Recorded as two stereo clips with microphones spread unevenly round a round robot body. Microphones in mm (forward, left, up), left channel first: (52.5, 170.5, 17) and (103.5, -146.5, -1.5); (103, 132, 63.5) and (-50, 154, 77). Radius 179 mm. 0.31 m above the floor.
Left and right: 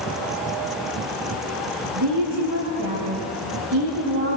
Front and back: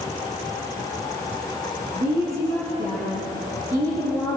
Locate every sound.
1.9 s a woman speaking: 125° right, 6.5 m